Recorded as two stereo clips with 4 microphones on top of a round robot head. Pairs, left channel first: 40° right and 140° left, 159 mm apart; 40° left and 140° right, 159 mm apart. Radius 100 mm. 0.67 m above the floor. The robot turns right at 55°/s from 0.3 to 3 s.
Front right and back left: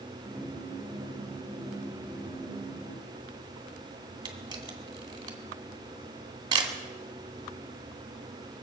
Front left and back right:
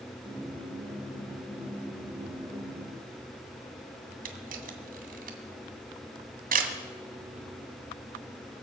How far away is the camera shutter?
About 2 m.